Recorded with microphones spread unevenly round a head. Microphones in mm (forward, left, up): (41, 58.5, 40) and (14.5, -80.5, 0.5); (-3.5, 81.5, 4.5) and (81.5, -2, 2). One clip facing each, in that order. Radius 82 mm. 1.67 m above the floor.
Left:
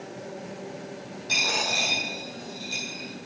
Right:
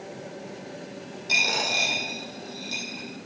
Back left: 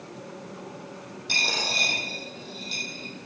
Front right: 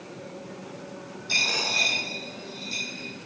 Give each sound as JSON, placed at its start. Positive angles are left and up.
{"t": 1.3, "sound": "a dropped coin", "azimuth_deg": 175, "distance_m": 3.5}